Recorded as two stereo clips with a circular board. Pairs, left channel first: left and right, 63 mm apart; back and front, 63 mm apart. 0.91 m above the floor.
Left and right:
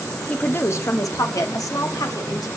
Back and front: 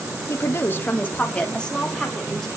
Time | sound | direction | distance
0.3 | a woman speaking | 155° left | 1.2 m